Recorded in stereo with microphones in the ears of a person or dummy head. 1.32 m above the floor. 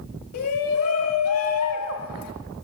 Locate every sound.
0.3 s a shout: 80° left, 2 m